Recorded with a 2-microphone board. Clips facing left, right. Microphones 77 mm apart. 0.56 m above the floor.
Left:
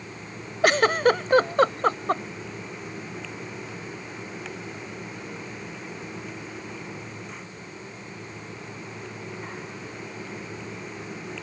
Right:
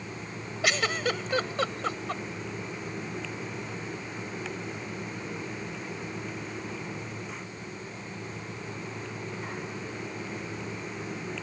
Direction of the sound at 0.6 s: 45° left (ahead or behind).